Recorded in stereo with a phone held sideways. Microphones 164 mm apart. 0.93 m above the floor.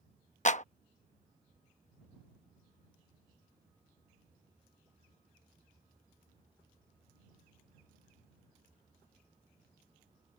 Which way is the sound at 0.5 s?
50° left (ahead or behind).